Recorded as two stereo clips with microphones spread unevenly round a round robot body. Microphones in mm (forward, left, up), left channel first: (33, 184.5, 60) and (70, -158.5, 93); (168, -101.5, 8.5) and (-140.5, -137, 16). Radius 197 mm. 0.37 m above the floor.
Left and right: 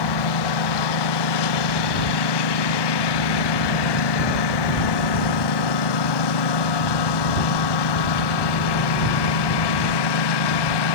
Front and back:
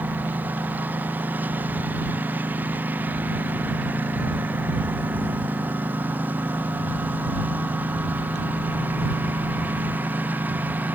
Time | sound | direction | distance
0.0 | a lawn mower | 100° left | ?